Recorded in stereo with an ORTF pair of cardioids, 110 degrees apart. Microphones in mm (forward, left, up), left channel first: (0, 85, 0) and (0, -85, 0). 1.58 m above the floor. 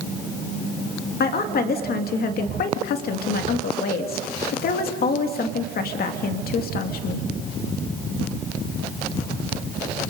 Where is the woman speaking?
65° left, 2.5 m.